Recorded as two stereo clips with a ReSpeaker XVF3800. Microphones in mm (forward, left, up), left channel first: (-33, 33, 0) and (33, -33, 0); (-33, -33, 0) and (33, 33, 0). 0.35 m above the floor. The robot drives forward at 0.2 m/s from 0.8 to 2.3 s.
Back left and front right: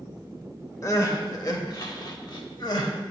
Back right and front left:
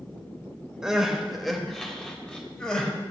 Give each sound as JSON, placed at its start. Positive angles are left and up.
{"t": 0.8, "sound": "crying", "azimuth_deg": 125, "distance_m": 0.6}